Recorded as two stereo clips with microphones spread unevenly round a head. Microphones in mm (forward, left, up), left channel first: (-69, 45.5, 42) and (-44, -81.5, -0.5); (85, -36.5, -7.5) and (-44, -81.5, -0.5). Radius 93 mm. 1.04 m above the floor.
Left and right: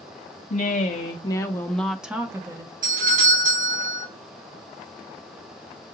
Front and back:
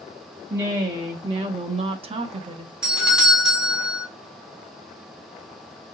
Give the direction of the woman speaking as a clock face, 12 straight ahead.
7 o'clock.